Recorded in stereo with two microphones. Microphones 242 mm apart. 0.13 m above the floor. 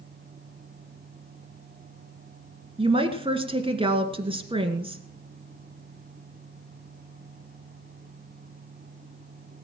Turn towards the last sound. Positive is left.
turn(degrees=-20)  # may be behind; listen again after turning